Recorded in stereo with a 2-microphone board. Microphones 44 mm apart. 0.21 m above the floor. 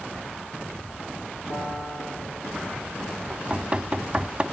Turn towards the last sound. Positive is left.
turn(degrees=-25)  # may be behind; listen again after turning